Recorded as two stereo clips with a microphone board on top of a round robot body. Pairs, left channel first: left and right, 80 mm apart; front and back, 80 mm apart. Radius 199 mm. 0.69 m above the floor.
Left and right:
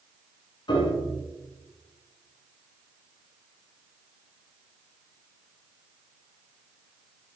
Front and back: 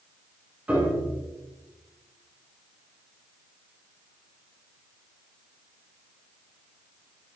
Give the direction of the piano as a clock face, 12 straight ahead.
8 o'clock.